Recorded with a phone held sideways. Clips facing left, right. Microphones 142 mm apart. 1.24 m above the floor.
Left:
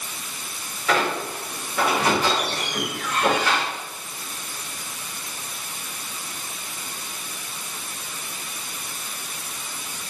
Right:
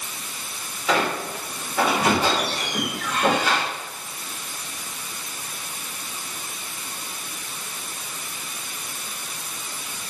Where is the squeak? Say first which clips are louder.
Even; 15° right (ahead or behind), 3.5 m.